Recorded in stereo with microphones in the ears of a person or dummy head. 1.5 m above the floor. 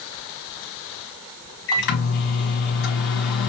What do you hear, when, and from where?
1.7 s a microwave: 65° left (ahead or behind), 1.6 m